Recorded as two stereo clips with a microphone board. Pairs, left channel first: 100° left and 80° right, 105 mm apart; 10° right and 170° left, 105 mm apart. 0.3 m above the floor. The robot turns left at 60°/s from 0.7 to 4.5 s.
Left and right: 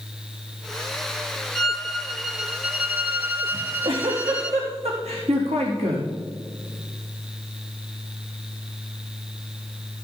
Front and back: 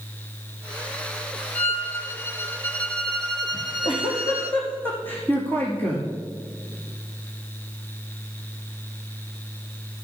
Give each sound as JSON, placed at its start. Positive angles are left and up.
{"t": 1.6, "sound": "a violin", "azimuth_deg": 25, "distance_m": 1.1}
{"t": 3.5, "sound": "a giggle", "azimuth_deg": -25, "distance_m": 3.5}